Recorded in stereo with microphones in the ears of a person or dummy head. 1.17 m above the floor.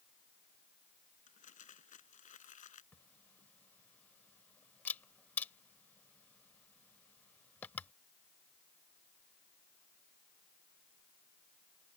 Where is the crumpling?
50° left (ahead or behind).